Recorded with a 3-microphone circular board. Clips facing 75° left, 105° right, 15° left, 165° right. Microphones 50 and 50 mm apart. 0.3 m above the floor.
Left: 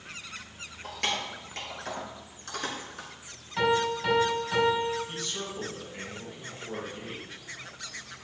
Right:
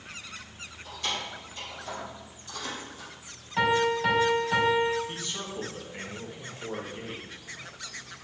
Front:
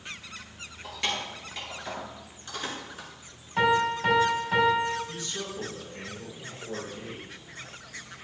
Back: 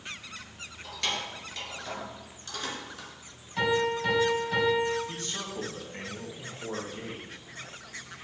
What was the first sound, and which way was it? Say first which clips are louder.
Keys jangling: left 2 dB, front 1 dB; 90° left.